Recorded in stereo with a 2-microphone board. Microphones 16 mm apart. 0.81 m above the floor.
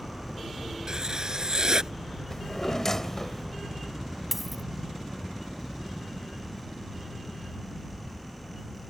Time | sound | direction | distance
0.9 | writing | 35° right (ahead or behind) | ?
2.3 | a drawer | 20° left (ahead or behind) | ?
4.3 | a dropped coin | 15° right (ahead or behind) | ?